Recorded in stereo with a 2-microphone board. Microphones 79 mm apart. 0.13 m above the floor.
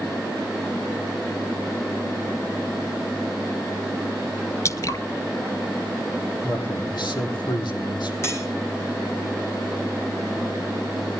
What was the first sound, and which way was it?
Dripping, 40° left (ahead or behind).